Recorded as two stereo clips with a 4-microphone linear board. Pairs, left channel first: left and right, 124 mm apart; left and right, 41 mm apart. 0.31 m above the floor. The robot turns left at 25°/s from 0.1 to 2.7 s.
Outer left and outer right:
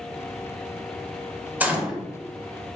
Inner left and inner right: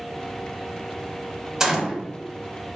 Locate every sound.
1.6 s a gunshot: 15° right (ahead or behind), 0.6 m; by 2.0 s 5° right (ahead or behind), 0.6 m